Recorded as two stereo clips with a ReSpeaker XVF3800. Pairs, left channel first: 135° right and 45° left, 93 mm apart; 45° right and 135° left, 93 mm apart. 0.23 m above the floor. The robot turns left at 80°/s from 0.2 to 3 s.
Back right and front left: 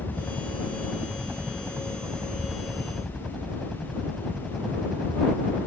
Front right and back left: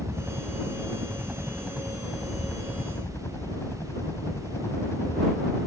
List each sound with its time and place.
0.0 s a helicopter: straight behind; by 5.7 s 45° right